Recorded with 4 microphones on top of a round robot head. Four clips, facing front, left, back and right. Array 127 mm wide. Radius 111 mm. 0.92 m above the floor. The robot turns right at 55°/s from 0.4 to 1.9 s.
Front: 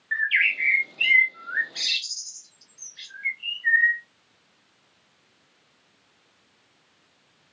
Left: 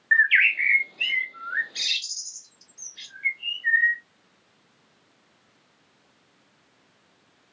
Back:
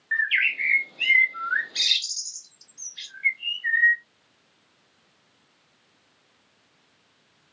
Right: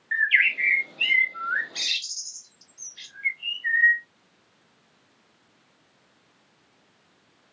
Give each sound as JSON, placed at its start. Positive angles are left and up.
{"t": 0.1, "sound": "a bird", "azimuth_deg": 90, "distance_m": 0.8}